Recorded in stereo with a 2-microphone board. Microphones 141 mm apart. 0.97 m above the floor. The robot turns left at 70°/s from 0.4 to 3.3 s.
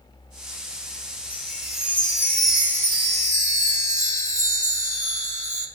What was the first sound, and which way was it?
A chime, 80° left.